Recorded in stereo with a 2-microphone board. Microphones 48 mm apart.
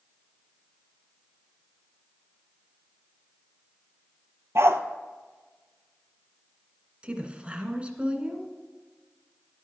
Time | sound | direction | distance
4.5 | a dog barking | 70° right (ahead or behind) | 0.9 m
7.0 | a woman speaking | 25° right (ahead or behind) | 1.5 m